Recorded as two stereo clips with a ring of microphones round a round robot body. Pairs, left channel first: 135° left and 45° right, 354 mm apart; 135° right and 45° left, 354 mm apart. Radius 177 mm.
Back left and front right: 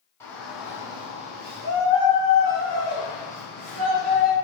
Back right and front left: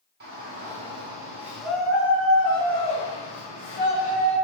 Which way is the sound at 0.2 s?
60° left.